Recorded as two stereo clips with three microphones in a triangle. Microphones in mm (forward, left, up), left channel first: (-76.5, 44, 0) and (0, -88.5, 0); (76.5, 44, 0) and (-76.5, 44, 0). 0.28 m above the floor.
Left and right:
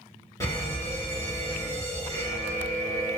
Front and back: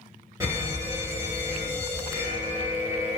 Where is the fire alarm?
145° left, 1.9 m.